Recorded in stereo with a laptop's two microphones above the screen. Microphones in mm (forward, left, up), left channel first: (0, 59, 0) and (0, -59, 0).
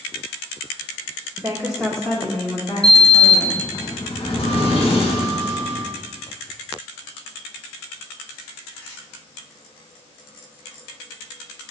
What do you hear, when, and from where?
1.4 s a woman speaking: 20° right (ahead or behind), 1.2 m; by 3.6 s 45° left (ahead or behind), 2.5 m
2.8 s a sliding door: 55° left (ahead or behind), 1.7 m